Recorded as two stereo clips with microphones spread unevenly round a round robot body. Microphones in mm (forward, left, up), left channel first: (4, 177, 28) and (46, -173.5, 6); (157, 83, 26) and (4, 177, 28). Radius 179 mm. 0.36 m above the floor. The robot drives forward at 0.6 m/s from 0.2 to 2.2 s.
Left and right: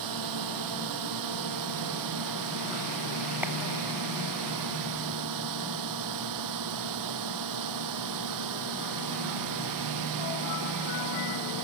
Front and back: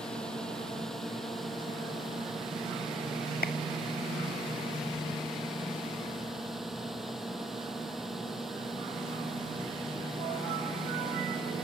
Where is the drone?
120° right.